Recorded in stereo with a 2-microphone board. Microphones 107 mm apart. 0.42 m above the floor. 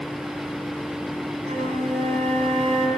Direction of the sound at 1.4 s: 85° right.